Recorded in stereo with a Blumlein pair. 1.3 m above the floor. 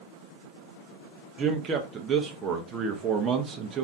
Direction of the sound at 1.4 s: 25° right.